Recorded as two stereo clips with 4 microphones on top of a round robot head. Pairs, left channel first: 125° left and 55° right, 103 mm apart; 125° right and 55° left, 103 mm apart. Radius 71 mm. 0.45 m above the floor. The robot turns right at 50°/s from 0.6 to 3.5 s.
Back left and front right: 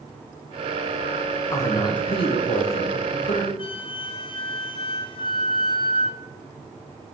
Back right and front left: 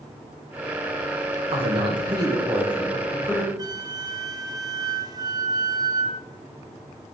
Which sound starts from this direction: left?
A flute, at 3.6 s.